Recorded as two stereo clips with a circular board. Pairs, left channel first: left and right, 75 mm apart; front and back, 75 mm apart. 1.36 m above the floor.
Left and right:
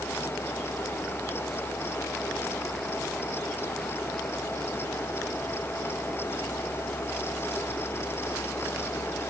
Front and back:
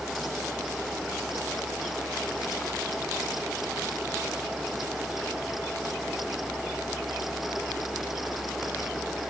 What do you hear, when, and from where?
Only background noise.